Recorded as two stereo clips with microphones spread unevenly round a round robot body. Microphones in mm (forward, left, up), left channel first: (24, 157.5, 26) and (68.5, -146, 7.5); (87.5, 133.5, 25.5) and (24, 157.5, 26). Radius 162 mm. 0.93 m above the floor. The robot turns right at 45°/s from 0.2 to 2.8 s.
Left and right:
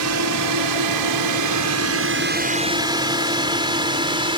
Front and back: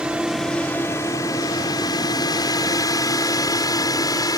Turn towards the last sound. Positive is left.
turn(degrees=-10)